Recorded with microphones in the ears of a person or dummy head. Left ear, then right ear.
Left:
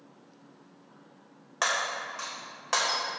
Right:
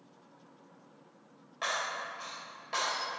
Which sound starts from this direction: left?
Breaking glass, at 1.6 s.